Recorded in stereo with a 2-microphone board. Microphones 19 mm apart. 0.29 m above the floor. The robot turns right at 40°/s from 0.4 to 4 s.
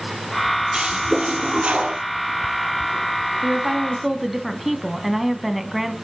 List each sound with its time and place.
0.7 s a toilet flushing: 135° right, 1.7 m; by 2.0 s 85° right, 1.7 m
3.4 s a woman speaking: 25° right (ahead or behind), 1.9 m; by 5.9 s 5° right (ahead or behind), 1.9 m